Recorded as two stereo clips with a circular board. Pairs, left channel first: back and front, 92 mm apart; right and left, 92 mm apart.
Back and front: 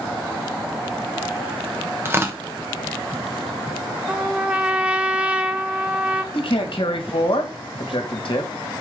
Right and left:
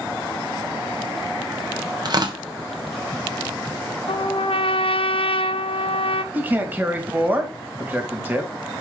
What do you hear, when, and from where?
2.0 s tearing paper: 60° left, 1.1 m
4.1 s a trumpet: 80° right, 0.7 m
6.3 s a man speaking: 160° left, 1.9 m